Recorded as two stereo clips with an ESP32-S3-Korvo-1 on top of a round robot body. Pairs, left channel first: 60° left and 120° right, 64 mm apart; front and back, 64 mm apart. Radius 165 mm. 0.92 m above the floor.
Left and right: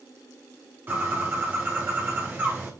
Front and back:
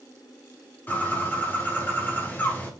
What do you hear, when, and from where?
0.9 s a bird: 60° right, 2.5 m